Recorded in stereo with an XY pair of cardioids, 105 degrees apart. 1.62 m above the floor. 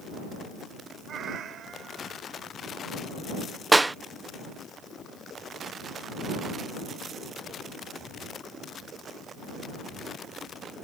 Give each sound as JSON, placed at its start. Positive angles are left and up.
{"t": 1.1, "sound": "a cat meowing", "azimuth_deg": -60}
{"t": 3.7, "sound": "a clap", "azimuth_deg": -15}